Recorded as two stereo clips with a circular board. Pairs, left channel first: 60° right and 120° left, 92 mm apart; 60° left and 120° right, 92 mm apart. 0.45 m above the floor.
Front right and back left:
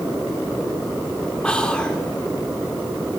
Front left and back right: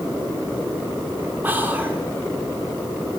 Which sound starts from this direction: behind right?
Whispering, at 1.4 s.